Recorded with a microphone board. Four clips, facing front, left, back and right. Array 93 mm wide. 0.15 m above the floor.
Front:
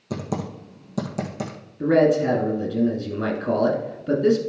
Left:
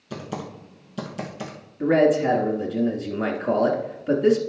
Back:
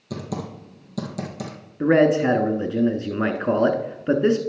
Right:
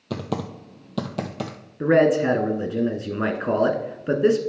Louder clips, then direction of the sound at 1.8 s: Right 1 dB, back 1 dB; 150° right.